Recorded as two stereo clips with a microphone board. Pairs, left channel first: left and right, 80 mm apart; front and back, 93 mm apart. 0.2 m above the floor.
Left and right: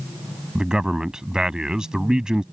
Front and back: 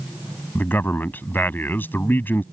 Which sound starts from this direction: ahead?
A man speaking, at 0.6 s.